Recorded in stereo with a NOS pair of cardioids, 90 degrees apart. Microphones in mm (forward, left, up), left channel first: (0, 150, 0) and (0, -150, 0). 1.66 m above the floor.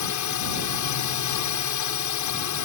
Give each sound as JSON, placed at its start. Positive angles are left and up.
{"t": 0.0, "sound": "a drone", "azimuth_deg": 70}